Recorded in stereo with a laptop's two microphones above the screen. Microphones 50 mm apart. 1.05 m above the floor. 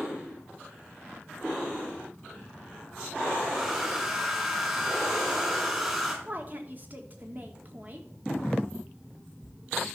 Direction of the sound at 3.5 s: 10° right (ahead or behind).